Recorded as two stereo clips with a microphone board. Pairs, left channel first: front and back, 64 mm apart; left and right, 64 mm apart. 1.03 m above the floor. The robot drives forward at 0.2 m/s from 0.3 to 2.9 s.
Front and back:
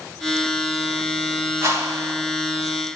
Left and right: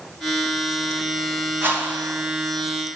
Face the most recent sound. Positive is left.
turn(degrees=-145)